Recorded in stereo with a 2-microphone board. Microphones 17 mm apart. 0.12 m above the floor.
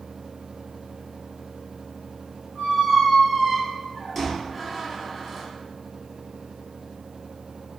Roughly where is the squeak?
Centre.